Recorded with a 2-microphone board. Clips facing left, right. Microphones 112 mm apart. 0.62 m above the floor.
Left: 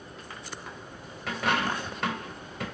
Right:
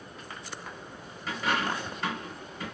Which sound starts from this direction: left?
A dropped coin, at 1.3 s.